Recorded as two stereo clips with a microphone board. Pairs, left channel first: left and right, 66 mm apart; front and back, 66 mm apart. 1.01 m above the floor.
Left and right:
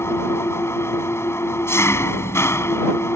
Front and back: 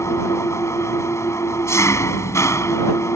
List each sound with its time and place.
0.0 s an engine running: 40° left